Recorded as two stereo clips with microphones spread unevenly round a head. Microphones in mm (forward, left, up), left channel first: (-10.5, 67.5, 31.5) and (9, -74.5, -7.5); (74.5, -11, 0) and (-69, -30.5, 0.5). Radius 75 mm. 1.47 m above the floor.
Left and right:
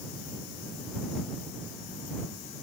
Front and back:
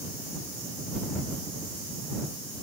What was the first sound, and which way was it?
Only background noise.